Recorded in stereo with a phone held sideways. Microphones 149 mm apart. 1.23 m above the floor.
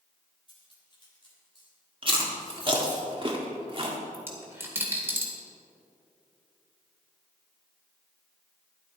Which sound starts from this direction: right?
Chewing, at 2.0 s.